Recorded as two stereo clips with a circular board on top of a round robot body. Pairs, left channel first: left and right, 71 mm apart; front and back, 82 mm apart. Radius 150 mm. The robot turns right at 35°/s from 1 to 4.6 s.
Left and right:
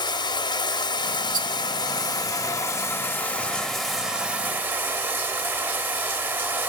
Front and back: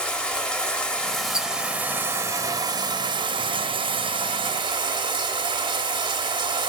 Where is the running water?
80° left, 0.8 m; by 6.7 s 155° right, 0.8 m.